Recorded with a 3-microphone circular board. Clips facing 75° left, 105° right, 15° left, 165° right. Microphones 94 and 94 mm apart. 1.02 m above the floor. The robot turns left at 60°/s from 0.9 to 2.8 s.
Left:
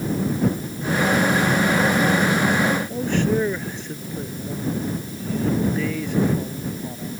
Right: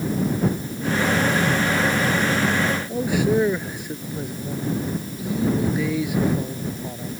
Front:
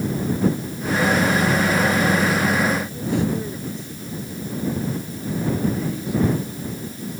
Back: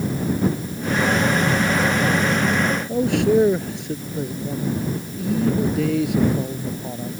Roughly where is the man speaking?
Behind.